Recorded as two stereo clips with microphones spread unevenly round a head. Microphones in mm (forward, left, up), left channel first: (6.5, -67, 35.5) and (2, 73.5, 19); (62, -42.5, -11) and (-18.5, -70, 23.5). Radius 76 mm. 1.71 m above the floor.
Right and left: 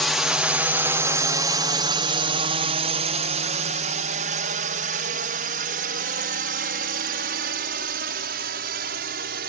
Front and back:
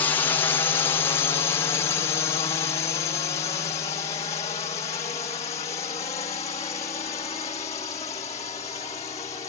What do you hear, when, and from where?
0.0 s a drone: 5° left; by 9.5 s 75° left